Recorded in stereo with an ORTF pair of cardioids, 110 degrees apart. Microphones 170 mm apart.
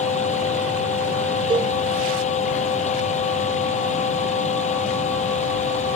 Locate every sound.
0.0 s a fan: 40° left
1.5 s a cowbell: 25° right